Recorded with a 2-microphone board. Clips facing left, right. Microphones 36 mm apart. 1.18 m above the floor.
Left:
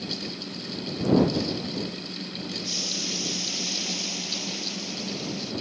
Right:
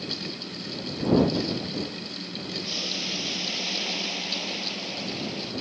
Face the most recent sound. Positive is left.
turn(degrees=-25)  # may be behind; listen again after turning